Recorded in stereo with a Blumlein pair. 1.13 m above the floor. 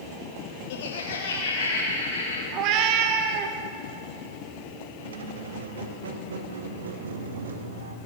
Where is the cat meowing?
40° right, 0.8 m.